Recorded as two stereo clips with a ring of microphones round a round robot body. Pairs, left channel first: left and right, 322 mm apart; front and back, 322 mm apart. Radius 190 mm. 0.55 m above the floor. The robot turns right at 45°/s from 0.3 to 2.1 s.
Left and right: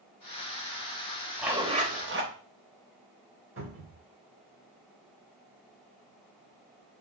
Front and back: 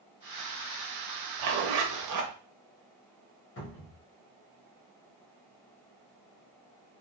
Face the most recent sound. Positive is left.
turn(degrees=-45)